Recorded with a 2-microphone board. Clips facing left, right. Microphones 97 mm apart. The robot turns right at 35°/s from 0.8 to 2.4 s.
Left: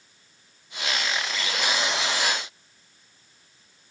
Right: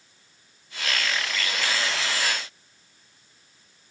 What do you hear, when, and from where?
Only background noise.